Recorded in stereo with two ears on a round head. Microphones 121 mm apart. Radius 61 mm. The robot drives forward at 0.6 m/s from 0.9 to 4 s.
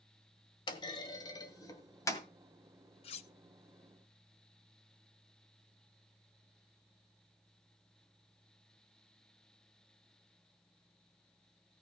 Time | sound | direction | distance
0.7 | a clunk | 35° left (ahead or behind) | 1.5 m
3.0 | cutlery clinking | 45° left (ahead or behind) | 0.8 m